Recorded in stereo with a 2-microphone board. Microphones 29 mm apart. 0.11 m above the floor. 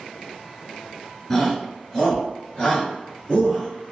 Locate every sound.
1.3 s a shout: 15° left (ahead or behind), 1.8 m; by 3.7 s 25° left (ahead or behind), 1.9 m